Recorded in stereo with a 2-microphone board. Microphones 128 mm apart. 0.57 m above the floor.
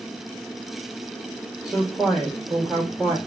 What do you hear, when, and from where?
1.6 s a woman speaking: centre (ahead or behind), 1.3 m